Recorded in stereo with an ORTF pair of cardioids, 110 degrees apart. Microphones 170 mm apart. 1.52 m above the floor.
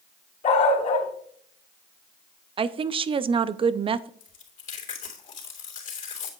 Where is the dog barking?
45° left, 3 m.